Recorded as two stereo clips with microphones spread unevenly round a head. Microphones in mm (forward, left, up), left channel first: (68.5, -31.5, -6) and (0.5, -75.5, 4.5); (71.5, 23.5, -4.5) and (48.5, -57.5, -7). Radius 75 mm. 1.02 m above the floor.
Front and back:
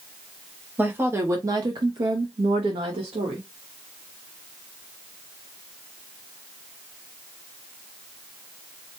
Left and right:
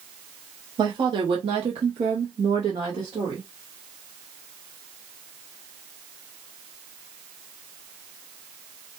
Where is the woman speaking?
80° right, 1.0 m; by 3.5 s 165° right, 1.1 m.